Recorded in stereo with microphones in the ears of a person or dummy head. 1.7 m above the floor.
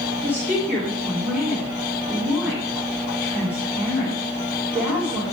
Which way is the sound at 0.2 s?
10° right (ahead or behind).